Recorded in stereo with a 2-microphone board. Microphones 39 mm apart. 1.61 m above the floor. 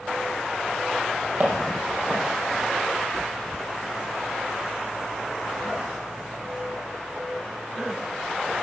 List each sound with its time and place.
1.4 s footsteps: 40° right (ahead or behind), 3 m